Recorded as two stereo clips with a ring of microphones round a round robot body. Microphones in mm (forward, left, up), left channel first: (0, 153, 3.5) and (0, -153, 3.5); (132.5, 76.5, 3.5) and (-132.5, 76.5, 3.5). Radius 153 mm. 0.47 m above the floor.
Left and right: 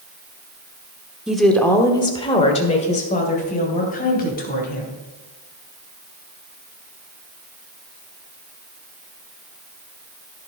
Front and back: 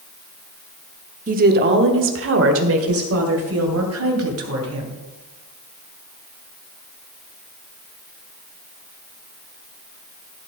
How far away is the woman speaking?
About 1.1 m.